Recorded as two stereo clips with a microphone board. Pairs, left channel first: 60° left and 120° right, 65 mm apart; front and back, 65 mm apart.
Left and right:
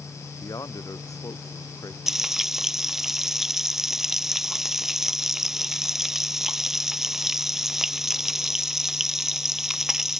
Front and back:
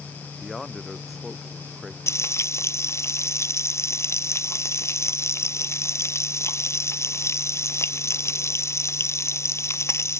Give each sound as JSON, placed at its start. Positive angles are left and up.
{"t": 0.4, "sound": "a man speaking", "azimuth_deg": 90}
{"t": 2.1, "sound": "frying", "azimuth_deg": -35}